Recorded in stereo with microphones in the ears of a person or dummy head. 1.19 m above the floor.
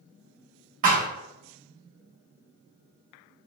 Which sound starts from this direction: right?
A thud, at 0.8 s.